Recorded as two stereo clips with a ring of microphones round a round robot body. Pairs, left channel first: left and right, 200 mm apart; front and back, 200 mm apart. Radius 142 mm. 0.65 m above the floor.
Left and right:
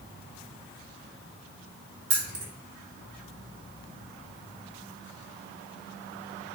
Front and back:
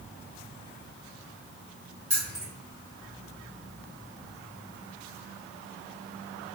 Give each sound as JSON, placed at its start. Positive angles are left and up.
{"t": 2.1, "sound": "keys jangling", "azimuth_deg": -110, "distance_m": 1.2}